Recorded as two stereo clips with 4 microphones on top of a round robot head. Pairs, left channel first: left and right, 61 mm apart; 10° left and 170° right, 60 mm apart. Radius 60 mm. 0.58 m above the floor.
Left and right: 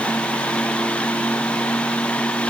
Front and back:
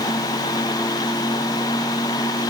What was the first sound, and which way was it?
Only background noise.